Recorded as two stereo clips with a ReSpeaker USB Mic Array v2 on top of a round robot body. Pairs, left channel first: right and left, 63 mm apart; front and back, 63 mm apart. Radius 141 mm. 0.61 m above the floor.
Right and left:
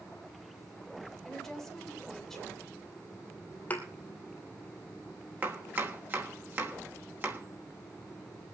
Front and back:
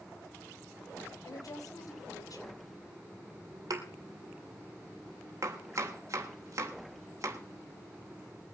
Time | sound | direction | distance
1.2 | a woman speaking | 5° right | 3.5 m
3.7 | a thud | 155° right | 2 m
5.4 | chopping | 145° left | 3.5 m